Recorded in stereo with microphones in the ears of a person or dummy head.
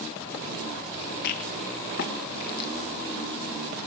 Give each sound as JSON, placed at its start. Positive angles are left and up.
{"t": 1.2, "sound": "a rattle", "side_deg": 55, "distance_m": 1.5}